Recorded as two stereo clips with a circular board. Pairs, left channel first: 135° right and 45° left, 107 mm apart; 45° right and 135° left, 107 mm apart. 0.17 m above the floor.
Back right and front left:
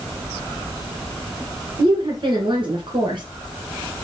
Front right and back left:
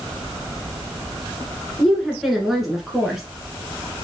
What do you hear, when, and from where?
1.8 s a woman speaking: 50° left, 1.9 m